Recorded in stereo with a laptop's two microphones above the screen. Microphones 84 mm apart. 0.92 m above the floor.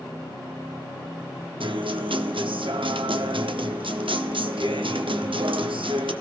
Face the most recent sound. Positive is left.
turn(degrees=-85)